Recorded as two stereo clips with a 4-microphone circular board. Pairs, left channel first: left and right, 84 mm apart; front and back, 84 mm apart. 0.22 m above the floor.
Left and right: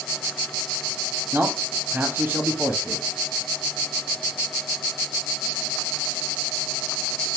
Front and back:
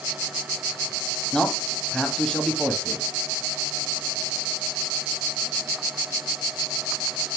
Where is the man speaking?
70° right, 1.0 m.